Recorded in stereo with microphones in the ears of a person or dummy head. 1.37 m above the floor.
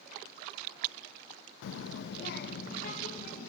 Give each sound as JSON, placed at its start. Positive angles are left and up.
{"t": 1.6, "sound": "a child speaking", "side_deg": 70, "distance_m": 0.5}